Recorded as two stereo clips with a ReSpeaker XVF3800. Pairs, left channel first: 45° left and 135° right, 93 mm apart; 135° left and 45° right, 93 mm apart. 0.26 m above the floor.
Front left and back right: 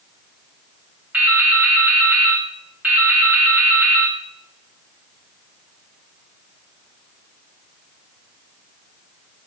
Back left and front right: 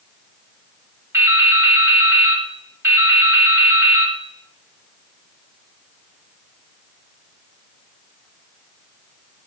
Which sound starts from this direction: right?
Dripping, at 1.1 s.